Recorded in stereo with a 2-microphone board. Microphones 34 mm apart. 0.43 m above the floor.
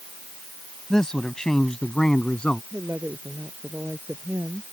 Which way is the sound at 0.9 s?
15° left (ahead or behind).